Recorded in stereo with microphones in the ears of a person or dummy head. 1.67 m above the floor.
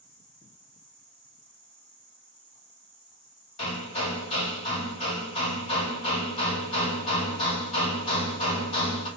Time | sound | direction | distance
0.0 | an insect | 50° left (ahead or behind) | 1.7 m
3.6 | hammering | 30° left (ahead or behind) | 2.5 m